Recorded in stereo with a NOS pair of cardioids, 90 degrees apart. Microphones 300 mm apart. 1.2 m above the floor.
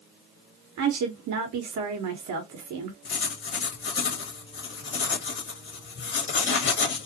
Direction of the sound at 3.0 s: 40° left.